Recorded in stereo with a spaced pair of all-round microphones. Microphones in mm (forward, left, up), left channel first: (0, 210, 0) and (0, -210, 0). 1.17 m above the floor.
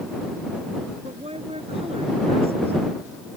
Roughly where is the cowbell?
I don't hear a cowbell.